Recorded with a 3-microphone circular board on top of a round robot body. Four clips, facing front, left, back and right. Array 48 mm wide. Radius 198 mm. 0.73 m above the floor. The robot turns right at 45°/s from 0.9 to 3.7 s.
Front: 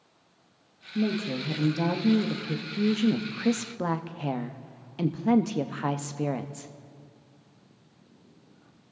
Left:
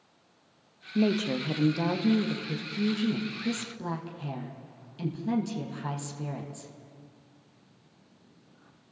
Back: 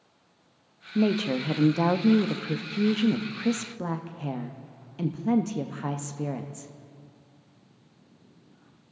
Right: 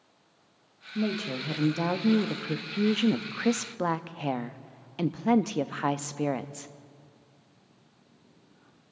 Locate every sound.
0.9 s a woman speaking: 155° left, 1.1 m; by 6.7 s 80° right, 1.1 m